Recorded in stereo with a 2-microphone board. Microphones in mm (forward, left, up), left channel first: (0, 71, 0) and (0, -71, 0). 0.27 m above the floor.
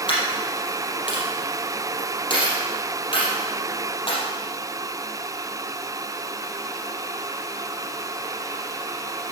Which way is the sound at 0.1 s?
35° left (ahead or behind).